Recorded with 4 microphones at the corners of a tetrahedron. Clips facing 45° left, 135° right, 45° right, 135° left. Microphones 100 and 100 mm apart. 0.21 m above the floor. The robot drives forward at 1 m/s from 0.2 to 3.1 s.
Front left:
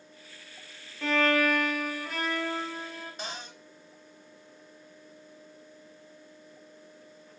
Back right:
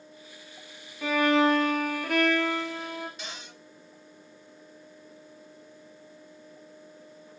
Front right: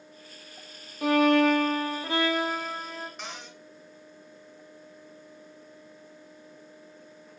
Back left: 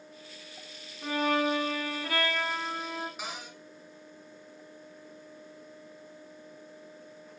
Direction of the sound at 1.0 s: 50° right.